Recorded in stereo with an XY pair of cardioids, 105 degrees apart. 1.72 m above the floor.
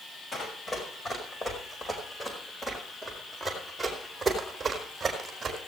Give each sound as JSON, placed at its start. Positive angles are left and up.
{"t": 0.3, "sound": "running footsteps", "azimuth_deg": 30, "distance_m": 6.0}